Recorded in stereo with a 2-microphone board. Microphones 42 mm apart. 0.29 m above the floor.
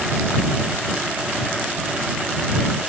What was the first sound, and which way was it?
Only background noise.